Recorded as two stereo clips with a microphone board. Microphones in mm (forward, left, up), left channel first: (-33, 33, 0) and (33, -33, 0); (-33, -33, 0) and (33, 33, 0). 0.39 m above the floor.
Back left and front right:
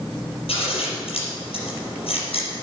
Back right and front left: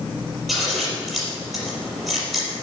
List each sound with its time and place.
0.5 s scissors: 135° left, 4.5 m